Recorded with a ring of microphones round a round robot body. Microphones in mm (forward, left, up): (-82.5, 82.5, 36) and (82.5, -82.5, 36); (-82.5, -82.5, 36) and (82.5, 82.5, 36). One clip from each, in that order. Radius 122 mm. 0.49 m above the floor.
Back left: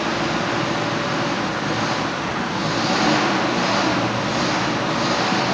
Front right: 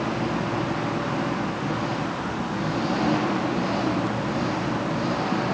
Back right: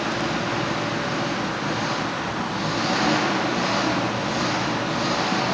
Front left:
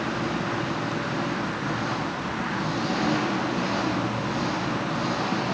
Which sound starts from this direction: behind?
An engine running, at 0.0 s.